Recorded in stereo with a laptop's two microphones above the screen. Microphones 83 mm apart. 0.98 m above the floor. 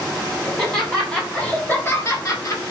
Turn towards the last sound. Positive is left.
turn(degrees=50)  # may be behind; listen again after turning